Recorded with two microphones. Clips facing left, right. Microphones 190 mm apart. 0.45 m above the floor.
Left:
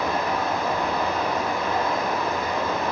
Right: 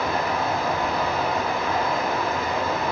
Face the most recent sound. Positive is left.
turn(degrees=40)  # may be behind; listen again after turning